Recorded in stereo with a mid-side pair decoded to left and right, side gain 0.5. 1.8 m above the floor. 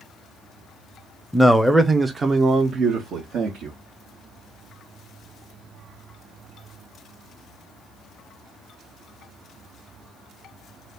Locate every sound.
1.3 s a man speaking: 5° left, 0.8 m; by 3.8 s 70° right, 1.3 m